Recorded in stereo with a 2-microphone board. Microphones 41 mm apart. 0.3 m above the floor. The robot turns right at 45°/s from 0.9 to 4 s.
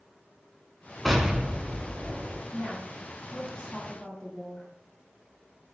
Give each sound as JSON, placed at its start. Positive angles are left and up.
{"t": 1.1, "sound": "an explosion", "azimuth_deg": 180, "distance_m": 0.5}
{"t": 2.5, "sound": "a woman speaking", "side_deg": 45, "distance_m": 1.5}